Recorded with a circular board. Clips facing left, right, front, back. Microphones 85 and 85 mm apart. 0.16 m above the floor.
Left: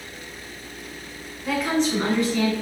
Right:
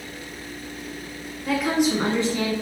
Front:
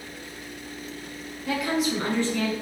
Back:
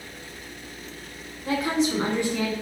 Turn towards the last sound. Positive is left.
turn(degrees=-100)